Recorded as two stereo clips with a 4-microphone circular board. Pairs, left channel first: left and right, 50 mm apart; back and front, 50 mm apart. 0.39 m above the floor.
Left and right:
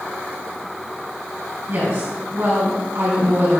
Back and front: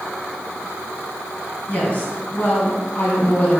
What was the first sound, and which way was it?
A woman speaking, 120° right.